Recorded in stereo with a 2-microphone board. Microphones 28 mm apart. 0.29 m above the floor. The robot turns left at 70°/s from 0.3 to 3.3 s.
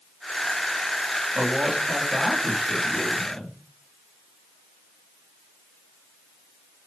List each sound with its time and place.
1.4 s a man speaking: 65° right, 2.5 m; by 3.6 s 155° left, 2.5 m